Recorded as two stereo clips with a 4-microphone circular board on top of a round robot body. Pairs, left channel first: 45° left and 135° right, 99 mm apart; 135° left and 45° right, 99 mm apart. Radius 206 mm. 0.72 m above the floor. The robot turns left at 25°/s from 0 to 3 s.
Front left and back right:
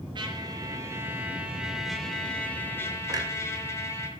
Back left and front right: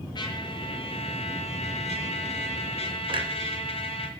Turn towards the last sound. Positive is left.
turn(degrees=-80)